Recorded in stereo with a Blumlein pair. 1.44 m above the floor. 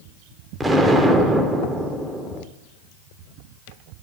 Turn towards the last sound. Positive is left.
turn(degrees=-5)